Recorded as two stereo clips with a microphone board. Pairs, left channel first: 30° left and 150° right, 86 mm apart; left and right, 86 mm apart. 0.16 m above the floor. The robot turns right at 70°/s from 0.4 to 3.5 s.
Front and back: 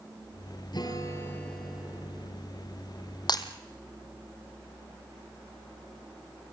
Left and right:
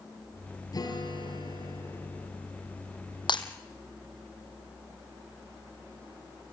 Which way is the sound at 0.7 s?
55° left.